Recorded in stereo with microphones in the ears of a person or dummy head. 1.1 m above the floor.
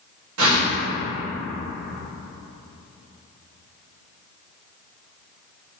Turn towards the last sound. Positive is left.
turn(degrees=-75)  # may be behind; listen again after turning